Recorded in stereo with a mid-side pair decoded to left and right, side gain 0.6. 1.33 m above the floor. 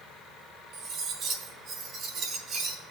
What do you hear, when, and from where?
0.7 s cutlery clinking: 50° right, 4 m